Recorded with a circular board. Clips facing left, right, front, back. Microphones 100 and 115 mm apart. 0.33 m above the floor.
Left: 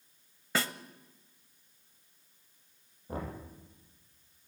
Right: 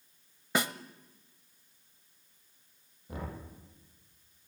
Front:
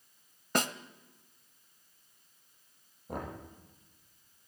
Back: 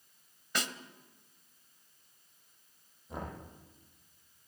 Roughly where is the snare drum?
Ahead.